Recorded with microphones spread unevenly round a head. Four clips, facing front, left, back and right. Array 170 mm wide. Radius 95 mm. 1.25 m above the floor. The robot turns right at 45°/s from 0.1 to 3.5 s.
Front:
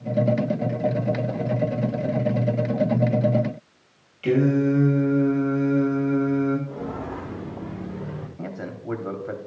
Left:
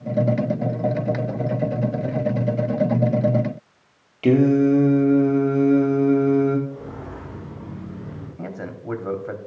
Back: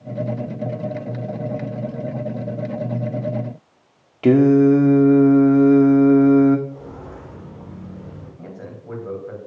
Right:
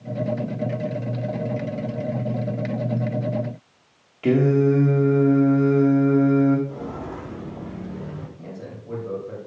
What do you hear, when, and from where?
4.2 s singing: 165° left, 1.6 m
6.7 s footsteps: 40° right, 4.5 m; by 8.3 s 35° right, 5.5 m
8.4 s a man speaking: 45° left, 3.5 m